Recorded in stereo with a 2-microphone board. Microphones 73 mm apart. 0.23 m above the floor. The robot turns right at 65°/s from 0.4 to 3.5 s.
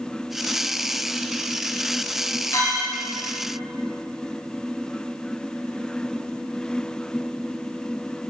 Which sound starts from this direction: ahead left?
A clink, at 2.5 s.